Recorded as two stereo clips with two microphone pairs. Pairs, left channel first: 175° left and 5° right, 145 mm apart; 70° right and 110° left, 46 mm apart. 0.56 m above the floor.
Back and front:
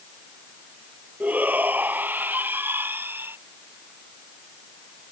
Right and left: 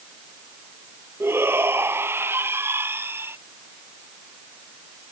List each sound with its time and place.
1.2 s a shout: 75° left; by 3.4 s 70° left